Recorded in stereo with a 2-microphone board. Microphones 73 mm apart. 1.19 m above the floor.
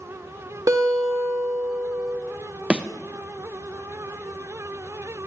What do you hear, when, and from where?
0.7 s a guitar: 50° right (ahead or behind), 1.0 m
2.7 s a thud: 15° right (ahead or behind), 0.5 m